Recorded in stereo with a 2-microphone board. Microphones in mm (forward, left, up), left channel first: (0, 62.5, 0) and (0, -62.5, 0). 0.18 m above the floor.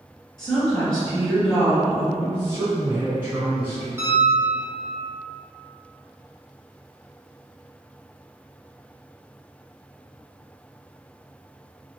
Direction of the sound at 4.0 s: 25° right (ahead or behind).